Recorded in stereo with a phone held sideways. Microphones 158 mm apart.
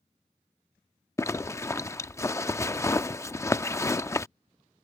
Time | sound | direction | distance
1.2 | a zipper | 20° left (ahead or behind) | ?